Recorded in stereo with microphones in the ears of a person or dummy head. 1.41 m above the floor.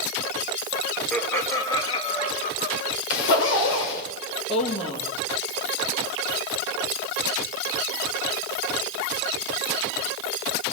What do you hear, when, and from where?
1.1 s laughter: 5° left (ahead or behind), 1.1 m; by 2.8 s 50° left (ahead or behind), 0.8 m
3.1 s a zipper: 60° left (ahead or behind), 3 m
4.5 s a woman speaking: 30° left (ahead or behind), 2.5 m